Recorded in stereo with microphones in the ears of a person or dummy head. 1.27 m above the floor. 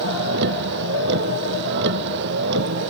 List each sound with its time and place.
0.0 s a vehicle: 60° right (ahead or behind)